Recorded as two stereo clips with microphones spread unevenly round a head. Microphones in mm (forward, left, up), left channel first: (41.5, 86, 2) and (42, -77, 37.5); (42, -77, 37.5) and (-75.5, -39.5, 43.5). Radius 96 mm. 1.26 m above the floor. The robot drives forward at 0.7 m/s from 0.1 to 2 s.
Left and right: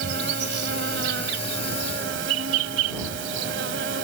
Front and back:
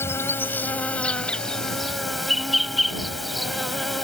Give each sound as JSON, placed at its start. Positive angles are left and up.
{"t": 0.0, "sound": "an insect", "azimuth_deg": -85}